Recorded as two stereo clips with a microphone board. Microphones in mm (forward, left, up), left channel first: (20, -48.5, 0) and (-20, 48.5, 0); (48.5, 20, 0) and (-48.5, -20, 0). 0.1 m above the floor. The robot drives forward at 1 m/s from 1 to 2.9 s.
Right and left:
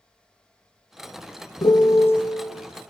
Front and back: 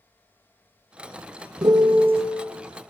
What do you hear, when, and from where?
1.6 s a piano: 105° right, 0.8 m; by 2.2 s 140° right, 1.1 m